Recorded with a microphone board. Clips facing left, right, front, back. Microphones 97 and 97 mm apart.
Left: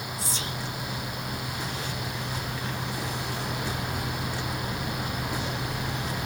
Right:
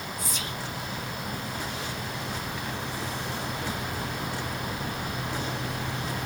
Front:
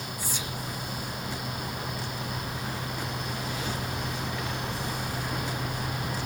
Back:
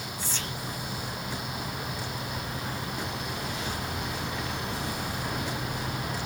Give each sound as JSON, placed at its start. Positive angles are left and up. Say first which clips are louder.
{"t": 0.2, "sound": "whispering", "louder": "left 1 dB, back 1 dB", "azimuth_deg": 65, "distance_m": 0.7}